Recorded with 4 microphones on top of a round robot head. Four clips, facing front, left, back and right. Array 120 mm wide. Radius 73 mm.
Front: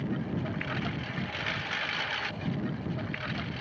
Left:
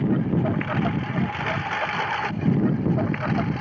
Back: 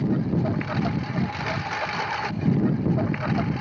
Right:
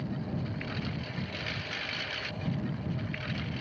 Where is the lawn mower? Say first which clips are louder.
Left 14 dB, back 9 dB; 115° left; by 3.6 s 125° left.